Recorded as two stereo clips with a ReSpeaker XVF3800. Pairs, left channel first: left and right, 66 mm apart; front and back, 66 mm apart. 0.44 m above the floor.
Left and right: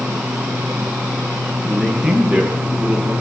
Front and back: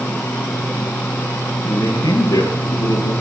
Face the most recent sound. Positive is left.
turn(degrees=-10)